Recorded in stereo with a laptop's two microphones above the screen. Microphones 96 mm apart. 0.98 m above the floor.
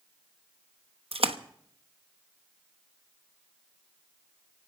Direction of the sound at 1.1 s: 85° right.